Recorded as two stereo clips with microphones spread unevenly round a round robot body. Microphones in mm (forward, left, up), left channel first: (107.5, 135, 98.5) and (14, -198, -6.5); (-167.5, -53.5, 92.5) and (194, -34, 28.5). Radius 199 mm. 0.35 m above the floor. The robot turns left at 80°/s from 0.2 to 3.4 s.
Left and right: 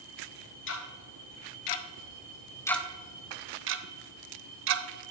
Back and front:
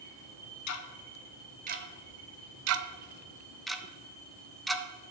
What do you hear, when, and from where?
0.7 s ticking: 140° left, 0.6 m; by 4.8 s 80° right, 0.6 m